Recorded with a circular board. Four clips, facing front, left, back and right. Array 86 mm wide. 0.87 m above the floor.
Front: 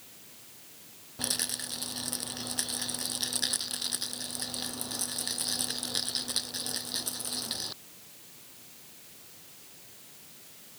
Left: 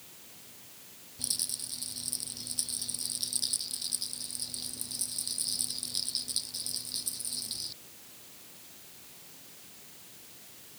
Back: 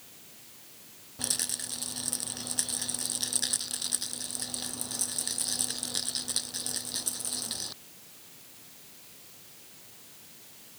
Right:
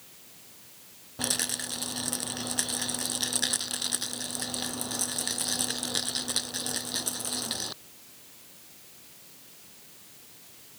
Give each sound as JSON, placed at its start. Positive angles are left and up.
{"t": 1.2, "sound": "a rattle", "azimuth_deg": -80}